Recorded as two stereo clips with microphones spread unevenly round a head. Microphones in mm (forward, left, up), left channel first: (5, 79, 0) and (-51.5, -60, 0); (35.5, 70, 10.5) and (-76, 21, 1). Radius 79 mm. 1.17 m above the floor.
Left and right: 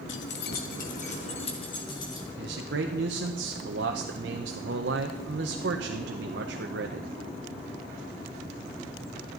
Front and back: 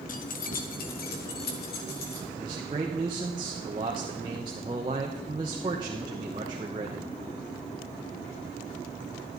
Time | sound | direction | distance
0.1 | keys jangling | 40° left | 0.9 m
2.4 | a man speaking | 95° right | 0.8 m